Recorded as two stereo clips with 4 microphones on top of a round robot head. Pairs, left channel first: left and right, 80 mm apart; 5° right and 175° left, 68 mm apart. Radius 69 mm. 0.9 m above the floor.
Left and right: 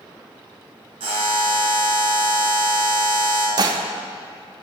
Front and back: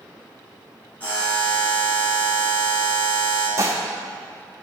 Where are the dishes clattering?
130° right, 0.7 m.